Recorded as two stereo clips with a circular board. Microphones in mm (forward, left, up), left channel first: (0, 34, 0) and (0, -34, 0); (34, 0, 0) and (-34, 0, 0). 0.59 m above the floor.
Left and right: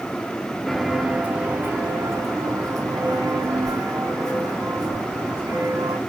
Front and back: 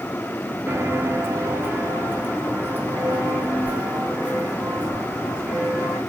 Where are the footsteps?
175° left, 0.6 m; by 6.0 s 110° right, 3 m.